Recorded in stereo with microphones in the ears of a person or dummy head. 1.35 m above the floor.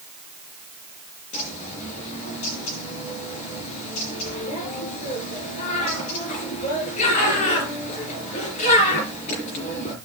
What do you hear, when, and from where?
1.3 s a bird: 45° left (ahead or behind), 4.5 m